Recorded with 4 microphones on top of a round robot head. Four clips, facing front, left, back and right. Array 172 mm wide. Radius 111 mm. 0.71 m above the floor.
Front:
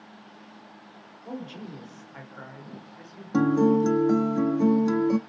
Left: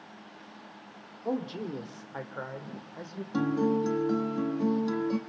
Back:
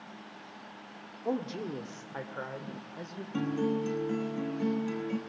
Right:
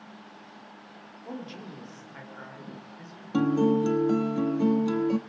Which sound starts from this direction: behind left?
A man speaking, at 1.2 s.